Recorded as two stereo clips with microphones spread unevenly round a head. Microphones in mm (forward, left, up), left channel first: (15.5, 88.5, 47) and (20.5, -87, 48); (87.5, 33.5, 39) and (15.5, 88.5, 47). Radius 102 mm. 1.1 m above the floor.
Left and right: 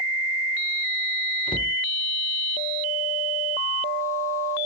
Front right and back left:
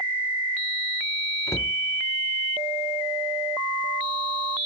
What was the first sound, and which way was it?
A cupboard door, 25° left.